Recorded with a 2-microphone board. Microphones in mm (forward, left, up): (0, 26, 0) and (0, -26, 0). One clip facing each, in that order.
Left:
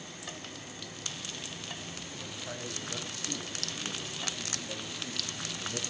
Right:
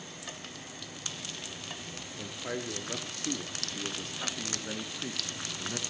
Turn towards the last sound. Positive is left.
turn(degrees=-35)  # may be behind; listen again after turning